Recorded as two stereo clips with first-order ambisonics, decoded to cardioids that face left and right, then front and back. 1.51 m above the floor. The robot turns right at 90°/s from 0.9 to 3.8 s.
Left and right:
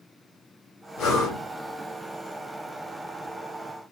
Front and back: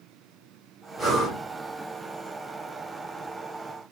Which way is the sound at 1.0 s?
95° left.